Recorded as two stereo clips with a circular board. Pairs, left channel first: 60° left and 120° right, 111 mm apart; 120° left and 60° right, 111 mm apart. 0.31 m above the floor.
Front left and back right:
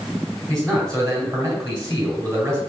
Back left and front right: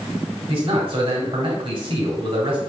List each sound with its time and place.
0.5 s a man speaking: 65° right, 1.8 m